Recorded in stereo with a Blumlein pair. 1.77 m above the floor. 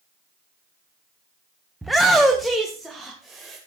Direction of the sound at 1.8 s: 5° right.